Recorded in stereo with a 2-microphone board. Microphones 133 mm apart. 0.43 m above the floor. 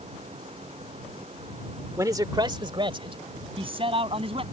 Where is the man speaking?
25° right (ahead or behind); by 4.4 s 45° right (ahead or behind).